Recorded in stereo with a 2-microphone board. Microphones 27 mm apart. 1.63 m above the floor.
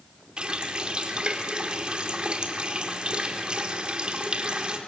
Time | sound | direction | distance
0.4 | a running tap | 35° right (ahead or behind) | 2.5 m